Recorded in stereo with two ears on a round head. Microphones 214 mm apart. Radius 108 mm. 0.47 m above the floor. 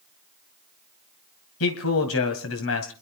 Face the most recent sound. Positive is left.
turn(degrees=65)  # may be behind; listen again after turning